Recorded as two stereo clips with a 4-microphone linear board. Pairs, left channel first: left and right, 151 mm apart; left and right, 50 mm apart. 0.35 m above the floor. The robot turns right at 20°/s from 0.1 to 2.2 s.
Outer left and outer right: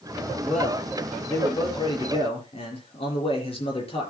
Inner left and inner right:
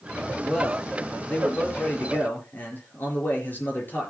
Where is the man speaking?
5° left, 5 m; by 4.1 s 40° left, 5 m.